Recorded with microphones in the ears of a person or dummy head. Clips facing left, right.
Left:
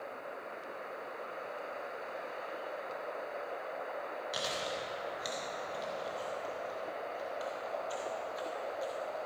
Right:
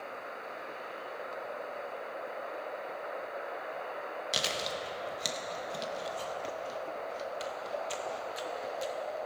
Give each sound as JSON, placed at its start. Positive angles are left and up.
{"t": 4.3, "sound": "chewing", "side_deg": -35, "distance_m": 0.9}